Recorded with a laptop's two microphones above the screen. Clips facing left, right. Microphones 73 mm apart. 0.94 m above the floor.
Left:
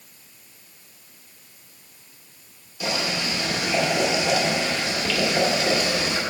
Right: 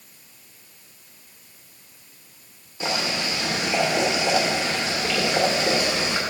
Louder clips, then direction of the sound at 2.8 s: Even; 30° right (ahead or behind).